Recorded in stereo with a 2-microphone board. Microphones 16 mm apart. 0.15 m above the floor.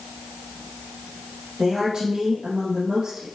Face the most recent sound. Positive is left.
turn(degrees=-55)  # may be behind; listen again after turning